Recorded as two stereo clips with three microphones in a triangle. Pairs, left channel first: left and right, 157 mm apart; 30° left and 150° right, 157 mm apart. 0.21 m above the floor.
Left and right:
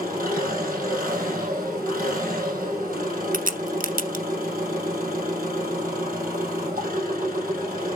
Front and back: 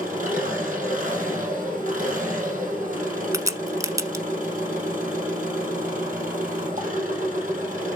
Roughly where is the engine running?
Behind right.